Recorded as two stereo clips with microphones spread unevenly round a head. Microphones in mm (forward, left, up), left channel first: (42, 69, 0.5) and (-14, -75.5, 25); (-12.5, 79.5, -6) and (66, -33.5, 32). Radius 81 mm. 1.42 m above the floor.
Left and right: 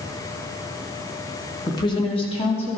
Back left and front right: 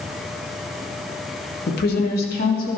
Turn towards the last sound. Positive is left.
turn(degrees=120)